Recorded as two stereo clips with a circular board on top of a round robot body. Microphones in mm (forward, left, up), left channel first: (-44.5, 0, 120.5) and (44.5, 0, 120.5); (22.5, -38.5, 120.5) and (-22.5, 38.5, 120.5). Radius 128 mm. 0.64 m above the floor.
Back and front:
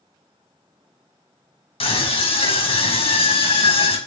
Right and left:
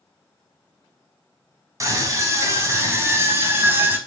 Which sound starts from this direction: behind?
A scream, at 1.8 s.